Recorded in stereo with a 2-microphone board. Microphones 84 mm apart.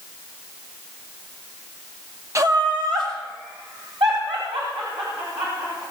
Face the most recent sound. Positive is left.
turn(degrees=-80)